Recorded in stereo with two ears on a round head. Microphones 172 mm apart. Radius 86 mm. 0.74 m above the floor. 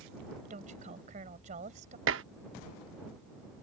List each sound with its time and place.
0.5 s a woman speaking: 40° right (ahead or behind)
2.1 s dishes clattering: 70° right (ahead or behind)